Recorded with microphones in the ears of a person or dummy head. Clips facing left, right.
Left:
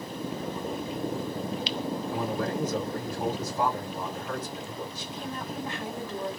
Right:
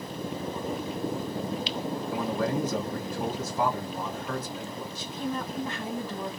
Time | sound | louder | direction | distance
2.1 | a man speaking | right 3 dB | 65° right (ahead or behind) | 1.9 m
5.0 | a woman speaking | right 4 dB | 85° right | 2 m